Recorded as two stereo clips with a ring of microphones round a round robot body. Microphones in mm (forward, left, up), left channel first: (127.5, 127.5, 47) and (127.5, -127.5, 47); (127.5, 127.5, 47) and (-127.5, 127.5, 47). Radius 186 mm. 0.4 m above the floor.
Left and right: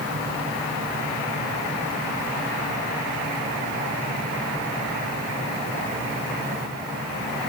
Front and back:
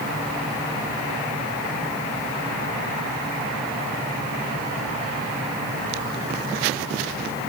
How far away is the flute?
I don't hear a flute.